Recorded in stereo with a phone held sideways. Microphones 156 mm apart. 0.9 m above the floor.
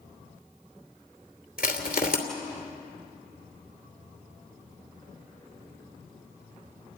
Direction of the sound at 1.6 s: 70° left (ahead or behind).